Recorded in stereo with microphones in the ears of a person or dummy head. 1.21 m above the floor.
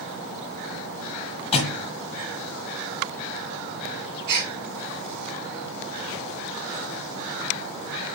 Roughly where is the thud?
Left.